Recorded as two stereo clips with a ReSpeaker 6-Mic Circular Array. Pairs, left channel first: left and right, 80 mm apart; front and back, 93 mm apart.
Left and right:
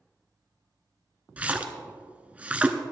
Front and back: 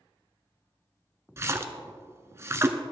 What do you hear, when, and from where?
1.4 s a splash: 150° right, 0.9 m